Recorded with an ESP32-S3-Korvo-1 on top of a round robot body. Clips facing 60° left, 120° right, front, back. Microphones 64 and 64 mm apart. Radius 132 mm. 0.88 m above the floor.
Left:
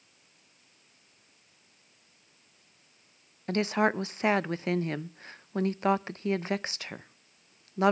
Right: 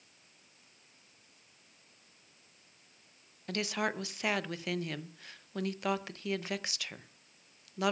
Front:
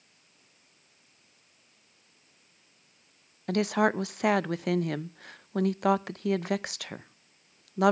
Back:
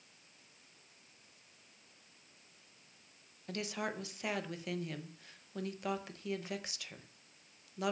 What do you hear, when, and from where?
3.5 s a woman speaking: 5° left, 0.6 m